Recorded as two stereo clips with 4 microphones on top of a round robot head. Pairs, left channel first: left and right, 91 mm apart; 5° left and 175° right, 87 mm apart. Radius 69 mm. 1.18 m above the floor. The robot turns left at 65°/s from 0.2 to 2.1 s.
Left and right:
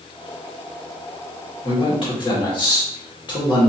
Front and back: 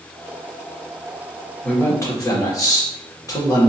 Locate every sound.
1.6 s a man speaking: 85° left, 2 m; by 3.7 s 55° left, 2 m